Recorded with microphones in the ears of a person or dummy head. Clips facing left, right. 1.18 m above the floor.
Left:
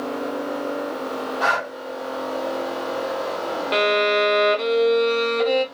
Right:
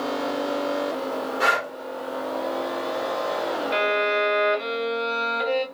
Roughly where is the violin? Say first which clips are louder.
Left 6 dB; left.